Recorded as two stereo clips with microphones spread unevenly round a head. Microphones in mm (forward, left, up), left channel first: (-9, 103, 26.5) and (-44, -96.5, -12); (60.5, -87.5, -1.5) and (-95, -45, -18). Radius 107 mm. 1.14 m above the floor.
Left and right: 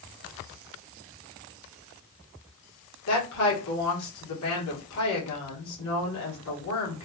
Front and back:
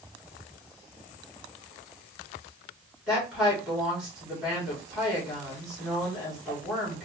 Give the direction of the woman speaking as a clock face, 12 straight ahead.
9 o'clock.